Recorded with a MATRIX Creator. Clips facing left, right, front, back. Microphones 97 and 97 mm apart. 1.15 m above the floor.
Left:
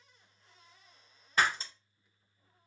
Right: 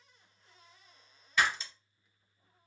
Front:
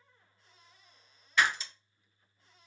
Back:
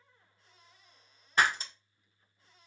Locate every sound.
1.4 s breaking glass: 135° left, 0.7 m